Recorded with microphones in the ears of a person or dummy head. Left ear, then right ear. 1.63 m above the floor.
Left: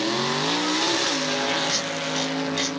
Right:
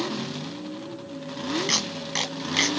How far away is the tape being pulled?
About 0.9 m.